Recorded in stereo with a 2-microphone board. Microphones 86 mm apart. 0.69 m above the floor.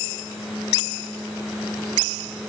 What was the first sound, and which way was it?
Only background noise.